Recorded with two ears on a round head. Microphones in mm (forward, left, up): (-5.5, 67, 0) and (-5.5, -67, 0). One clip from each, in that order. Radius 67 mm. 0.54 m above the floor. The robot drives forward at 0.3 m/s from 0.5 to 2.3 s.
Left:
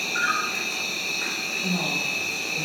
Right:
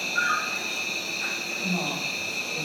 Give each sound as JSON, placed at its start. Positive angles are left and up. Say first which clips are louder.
{"t": 0.0, "sound": "an insect", "louder": "left 1 dB", "side_deg": 70, "distance_m": 1.1}
{"t": 1.6, "sound": "a woman speaking", "louder": "left 3 dB", "side_deg": 10, "distance_m": 1.5}